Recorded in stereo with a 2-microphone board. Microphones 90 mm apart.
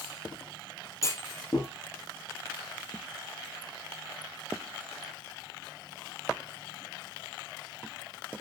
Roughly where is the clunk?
Left.